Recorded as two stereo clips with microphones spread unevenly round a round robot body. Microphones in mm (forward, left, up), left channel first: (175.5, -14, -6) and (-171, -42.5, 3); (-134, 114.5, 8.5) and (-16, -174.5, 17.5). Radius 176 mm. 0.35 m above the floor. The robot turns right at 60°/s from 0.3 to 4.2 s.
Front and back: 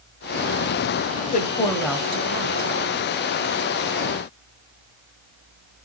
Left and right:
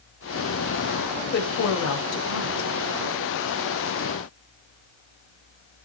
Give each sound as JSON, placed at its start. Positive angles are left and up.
{"t": 1.2, "sound": "a woman speaking", "azimuth_deg": 55, "distance_m": 1.4}